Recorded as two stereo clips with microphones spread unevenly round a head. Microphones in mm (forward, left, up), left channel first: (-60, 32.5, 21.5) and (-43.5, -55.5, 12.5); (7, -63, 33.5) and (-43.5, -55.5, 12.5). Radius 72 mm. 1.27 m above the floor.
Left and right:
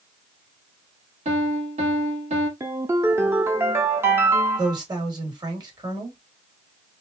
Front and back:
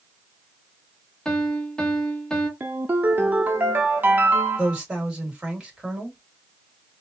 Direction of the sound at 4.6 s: 120° right.